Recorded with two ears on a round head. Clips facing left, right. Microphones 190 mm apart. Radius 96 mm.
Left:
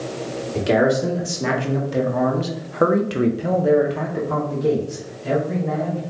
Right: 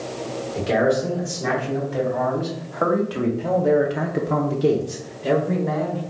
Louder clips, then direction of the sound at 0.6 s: Left 2 dB; 65° left (ahead or behind).